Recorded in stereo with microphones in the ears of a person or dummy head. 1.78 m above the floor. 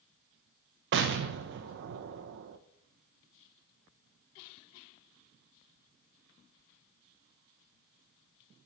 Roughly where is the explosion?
Right.